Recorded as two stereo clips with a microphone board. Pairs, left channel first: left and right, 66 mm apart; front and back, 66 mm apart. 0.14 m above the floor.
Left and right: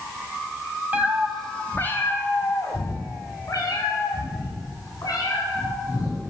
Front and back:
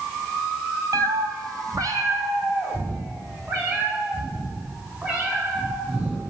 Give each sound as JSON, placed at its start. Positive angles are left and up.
{"t": 0.9, "sound": "a cat meowing", "azimuth_deg": -155, "distance_m": 0.5}